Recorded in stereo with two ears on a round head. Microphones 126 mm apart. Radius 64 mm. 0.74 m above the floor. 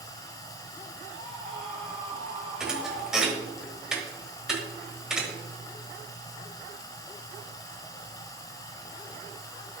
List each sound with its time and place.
0.0 s running water: 25° left (ahead or behind), 1.1 m
1.1 s a scream: 45° right (ahead or behind), 2.5 m
2.6 s a thud: 5° right (ahead or behind), 1.3 m